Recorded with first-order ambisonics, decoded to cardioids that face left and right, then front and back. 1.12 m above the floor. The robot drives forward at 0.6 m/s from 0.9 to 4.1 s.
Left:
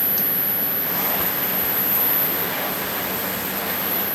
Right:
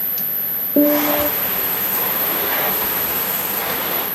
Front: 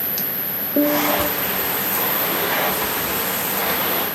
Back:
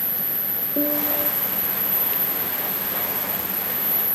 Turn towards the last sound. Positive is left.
turn(degrees=-80)